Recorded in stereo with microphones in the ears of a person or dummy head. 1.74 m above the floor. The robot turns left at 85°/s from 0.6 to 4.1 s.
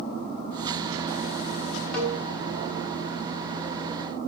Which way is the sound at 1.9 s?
5° left (ahead or behind).